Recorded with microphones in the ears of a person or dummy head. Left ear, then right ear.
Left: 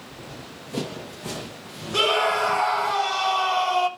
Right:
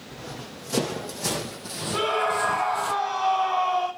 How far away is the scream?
About 6 m.